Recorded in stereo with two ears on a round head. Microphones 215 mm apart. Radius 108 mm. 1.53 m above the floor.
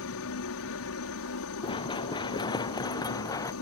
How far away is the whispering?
I don't hear whispering.